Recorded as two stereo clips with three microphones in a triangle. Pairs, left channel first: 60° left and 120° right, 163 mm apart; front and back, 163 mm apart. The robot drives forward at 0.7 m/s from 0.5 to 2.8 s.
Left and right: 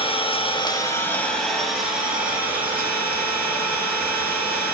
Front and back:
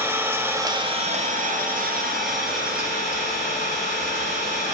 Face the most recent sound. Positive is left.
turn(degrees=160)